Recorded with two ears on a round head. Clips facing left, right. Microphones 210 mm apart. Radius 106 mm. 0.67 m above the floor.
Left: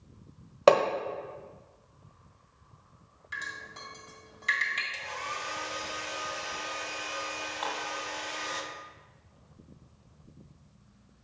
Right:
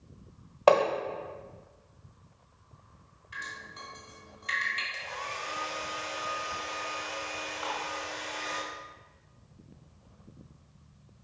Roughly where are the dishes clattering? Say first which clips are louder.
Left 1 dB; left.